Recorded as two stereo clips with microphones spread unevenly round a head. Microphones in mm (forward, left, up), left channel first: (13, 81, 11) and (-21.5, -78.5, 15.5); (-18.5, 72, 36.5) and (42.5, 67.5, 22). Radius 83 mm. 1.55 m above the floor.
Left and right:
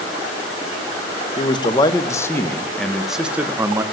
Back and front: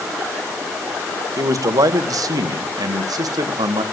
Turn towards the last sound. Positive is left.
turn(degrees=-30)